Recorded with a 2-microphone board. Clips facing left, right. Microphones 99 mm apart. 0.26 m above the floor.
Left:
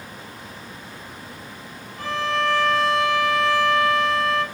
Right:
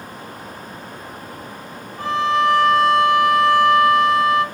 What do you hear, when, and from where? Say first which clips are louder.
2.0 s a violin: right 6 dB; 20° right (ahead or behind), 1.0 m